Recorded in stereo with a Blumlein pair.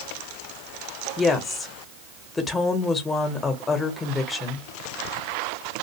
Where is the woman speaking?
15° left, 0.9 m.